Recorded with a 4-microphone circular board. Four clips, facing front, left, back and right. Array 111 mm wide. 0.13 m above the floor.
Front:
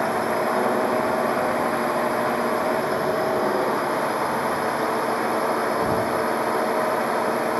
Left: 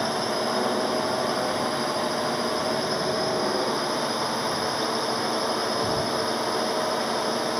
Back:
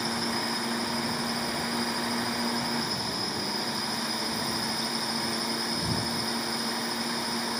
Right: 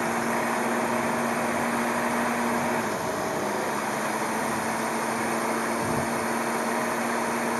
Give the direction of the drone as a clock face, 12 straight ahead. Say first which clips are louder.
Even, front 9 dB; 12 o'clock.